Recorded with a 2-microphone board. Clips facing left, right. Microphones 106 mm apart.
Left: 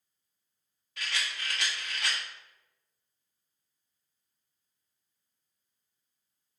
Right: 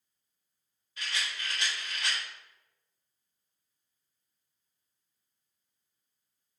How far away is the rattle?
About 1.6 m.